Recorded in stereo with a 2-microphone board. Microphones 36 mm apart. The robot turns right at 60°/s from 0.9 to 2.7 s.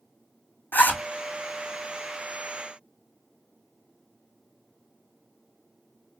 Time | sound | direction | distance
0.7 | a zipper | 60° left (ahead or behind) | 1.5 m